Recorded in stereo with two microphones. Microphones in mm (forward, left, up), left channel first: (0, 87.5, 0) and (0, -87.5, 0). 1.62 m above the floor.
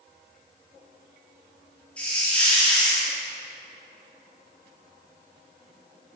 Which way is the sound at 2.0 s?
5° left (ahead or behind).